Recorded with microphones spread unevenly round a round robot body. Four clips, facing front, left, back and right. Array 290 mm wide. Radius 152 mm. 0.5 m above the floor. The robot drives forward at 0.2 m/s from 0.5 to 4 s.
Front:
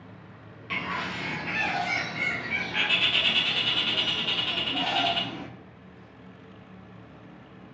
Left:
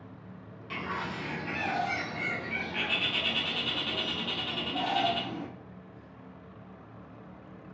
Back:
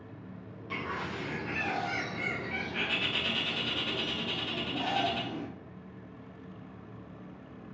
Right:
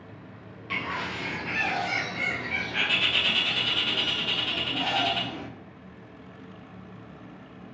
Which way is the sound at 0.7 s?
5° right.